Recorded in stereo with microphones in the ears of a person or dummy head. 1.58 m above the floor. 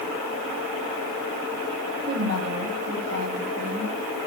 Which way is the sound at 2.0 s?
65° right (ahead or behind).